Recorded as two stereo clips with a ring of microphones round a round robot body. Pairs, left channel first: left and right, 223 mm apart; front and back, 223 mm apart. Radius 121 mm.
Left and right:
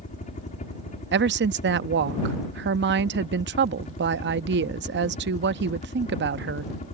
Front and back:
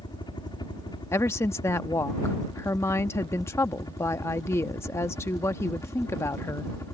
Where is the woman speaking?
75° right.